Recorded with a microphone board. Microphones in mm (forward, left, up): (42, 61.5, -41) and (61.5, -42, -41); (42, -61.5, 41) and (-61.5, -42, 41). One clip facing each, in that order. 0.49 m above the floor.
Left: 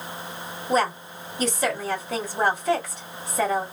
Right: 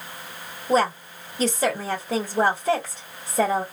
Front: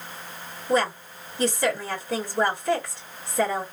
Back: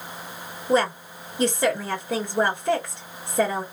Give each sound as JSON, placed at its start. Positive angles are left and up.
{"t": 0.7, "sound": "a woman speaking", "azimuth_deg": -135, "distance_m": 1.7}